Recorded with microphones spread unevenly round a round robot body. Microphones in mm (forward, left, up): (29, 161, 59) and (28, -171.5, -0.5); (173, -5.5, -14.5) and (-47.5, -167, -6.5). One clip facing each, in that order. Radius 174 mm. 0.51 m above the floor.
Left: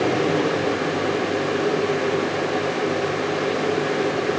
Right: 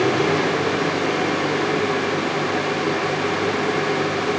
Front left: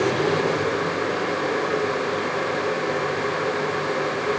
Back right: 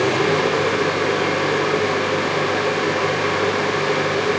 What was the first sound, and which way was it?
Only background noise.